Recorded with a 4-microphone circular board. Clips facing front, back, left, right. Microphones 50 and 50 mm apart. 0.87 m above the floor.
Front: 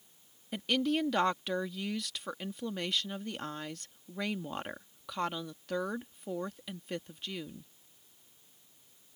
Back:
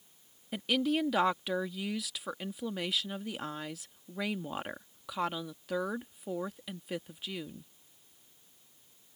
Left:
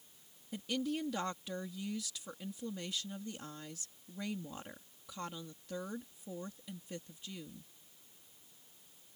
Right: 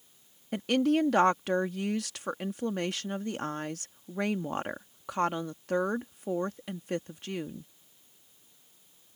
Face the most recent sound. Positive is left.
turn(degrees=-95)